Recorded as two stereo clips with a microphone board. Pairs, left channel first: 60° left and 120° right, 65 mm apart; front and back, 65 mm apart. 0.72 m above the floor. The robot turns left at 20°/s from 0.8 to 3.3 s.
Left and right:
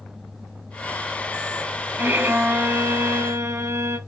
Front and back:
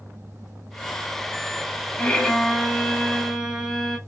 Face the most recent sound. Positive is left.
turn(degrees=-90)